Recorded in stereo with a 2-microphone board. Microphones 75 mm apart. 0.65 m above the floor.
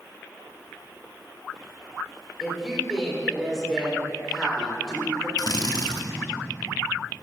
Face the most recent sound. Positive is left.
turn(degrees=60)  # may be behind; listen again after turning